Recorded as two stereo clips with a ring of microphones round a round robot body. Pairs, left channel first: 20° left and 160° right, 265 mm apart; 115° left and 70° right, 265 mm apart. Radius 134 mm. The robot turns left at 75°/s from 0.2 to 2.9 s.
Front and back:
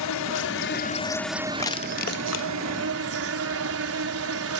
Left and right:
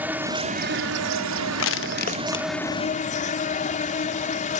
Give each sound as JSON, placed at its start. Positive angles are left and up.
{"t": 0.0, "sound": "an insect", "azimuth_deg": 15}
{"t": 1.6, "sound": "crushing", "azimuth_deg": 100}